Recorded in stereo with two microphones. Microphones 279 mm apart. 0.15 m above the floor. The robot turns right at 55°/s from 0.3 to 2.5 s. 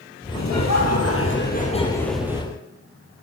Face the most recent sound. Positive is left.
turn(degrees=-160)